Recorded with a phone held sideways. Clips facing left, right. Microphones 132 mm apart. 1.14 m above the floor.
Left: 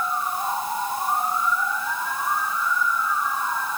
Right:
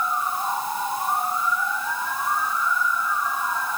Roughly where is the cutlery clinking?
I don't hear cutlery clinking.